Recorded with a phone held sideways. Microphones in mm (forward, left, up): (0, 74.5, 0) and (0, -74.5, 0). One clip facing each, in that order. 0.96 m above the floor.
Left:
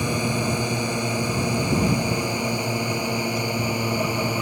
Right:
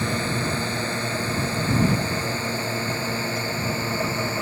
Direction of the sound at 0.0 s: 15° left (ahead or behind).